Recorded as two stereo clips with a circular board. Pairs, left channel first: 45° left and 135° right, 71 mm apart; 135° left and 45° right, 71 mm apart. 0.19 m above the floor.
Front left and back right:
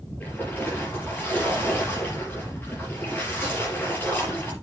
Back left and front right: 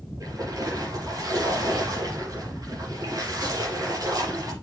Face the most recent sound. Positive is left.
turn(degrees=-15)